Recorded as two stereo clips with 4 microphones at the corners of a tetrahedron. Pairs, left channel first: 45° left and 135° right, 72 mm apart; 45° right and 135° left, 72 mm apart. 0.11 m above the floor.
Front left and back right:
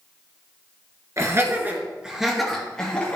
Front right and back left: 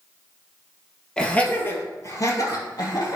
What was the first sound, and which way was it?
Laughter, 120° right.